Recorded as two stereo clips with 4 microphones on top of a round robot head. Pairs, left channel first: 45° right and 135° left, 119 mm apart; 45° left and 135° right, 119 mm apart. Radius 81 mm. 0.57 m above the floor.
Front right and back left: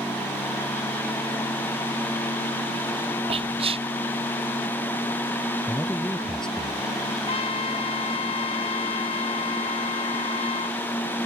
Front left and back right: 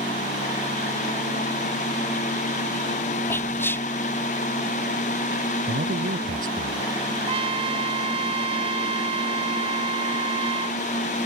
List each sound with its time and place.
3.3 s whispering: 115° left
5.7 s a man speaking: 130° right
7.3 s a trumpet: 90° right